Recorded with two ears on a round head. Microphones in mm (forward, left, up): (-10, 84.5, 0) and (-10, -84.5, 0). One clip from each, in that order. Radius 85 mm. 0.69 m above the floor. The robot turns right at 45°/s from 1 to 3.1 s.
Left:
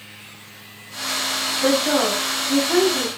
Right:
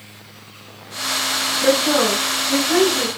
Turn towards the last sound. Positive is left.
turn(degrees=-160)